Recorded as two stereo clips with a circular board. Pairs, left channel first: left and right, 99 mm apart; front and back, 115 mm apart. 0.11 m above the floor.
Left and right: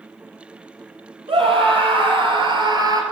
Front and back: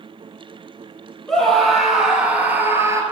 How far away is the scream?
About 2.5 m.